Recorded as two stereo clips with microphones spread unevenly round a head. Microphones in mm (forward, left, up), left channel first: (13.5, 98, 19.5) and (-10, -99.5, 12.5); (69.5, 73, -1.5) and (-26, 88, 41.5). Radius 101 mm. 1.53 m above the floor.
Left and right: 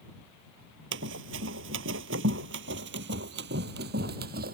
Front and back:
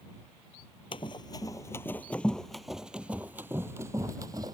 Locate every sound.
0.9 s running footsteps: 85° right; by 4.5 s 140° right